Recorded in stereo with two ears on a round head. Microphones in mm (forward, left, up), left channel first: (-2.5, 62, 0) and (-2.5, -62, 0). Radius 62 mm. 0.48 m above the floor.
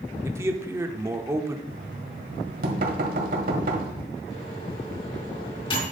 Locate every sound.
0.2 s a man speaking: 20° right (ahead or behind), 0.8 m
1.7 s knocking: 70° right (ahead or behind), 1.5 m
4.3 s a microwave: 40° left (ahead or behind), 3.5 m